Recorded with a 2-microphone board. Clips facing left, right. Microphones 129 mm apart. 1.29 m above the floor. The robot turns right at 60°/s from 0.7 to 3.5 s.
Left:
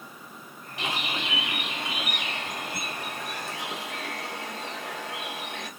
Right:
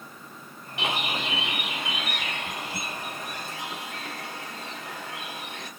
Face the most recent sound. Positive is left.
turn(degrees=100)